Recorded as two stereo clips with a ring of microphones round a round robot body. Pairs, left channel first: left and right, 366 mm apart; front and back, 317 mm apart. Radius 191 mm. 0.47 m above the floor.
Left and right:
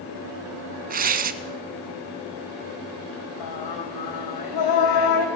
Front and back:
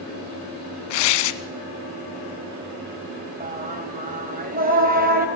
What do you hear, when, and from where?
0.9 s tearing paper: 20° right, 0.8 m
3.4 s singing: 115° left, 3 m